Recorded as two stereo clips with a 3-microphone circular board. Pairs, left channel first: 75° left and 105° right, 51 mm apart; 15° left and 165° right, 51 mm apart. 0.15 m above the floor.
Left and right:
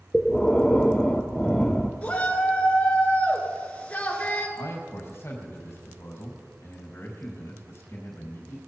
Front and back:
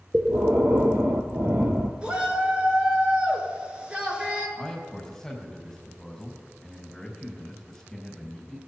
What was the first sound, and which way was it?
Breathing, 155° left.